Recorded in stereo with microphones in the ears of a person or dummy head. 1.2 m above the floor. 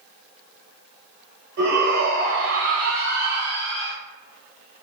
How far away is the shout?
About 2 m.